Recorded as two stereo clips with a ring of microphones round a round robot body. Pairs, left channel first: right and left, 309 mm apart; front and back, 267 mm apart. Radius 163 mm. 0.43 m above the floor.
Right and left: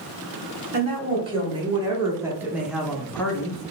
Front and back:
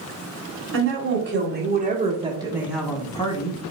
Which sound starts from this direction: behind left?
A woman speaking, at 0.7 s.